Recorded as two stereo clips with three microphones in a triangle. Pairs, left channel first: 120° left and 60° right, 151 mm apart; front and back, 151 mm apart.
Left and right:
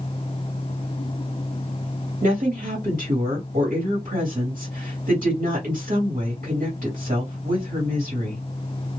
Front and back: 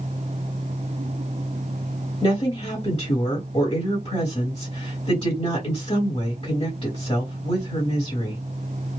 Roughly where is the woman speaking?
Ahead right.